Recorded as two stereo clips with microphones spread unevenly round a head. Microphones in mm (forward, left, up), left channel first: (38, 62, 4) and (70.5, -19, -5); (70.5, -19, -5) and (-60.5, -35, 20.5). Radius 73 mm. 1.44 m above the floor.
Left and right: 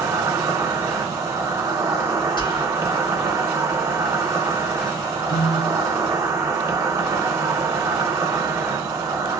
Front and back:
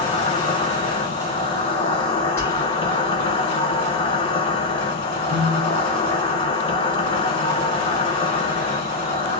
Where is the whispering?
85° left, 1.3 m.